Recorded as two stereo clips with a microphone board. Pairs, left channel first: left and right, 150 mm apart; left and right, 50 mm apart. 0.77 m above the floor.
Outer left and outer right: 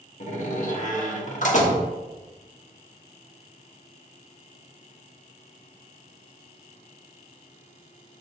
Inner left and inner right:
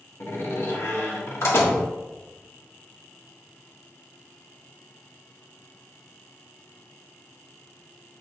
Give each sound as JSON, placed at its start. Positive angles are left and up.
{"t": 0.2, "sound": "a door slam", "side_deg": 55, "distance_m": 1.3}